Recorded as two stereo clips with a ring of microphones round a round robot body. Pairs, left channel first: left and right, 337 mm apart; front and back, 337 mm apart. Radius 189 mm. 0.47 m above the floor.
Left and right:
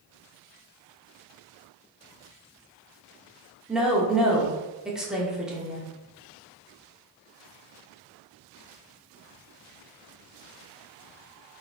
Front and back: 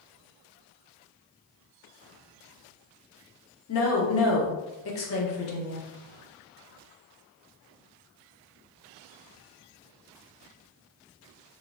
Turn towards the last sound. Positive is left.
turn(degrees=-5)